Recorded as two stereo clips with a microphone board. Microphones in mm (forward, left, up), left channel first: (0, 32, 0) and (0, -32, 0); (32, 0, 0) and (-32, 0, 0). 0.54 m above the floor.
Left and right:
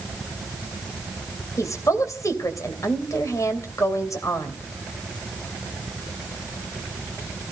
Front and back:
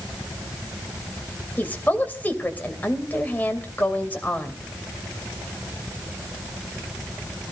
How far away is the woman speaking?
About 3 m.